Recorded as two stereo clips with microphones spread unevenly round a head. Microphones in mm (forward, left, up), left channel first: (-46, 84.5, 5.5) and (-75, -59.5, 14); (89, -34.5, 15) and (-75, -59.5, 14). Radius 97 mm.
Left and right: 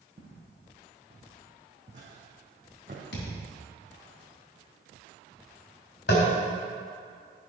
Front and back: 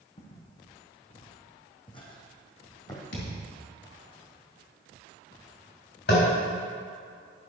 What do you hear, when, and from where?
0.2 s footsteps: 45° right, 3.5 m; by 3.0 s 60° right, 2 m
3.1 s a thud: 45° left, 3 m
6.1 s tapping: 45° left, 3.5 m